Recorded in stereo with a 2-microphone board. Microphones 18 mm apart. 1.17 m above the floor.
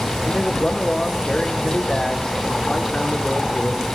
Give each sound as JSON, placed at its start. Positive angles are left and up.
{"t": 0.2, "sound": "a man speaking", "side_deg": 40, "distance_m": 2.0}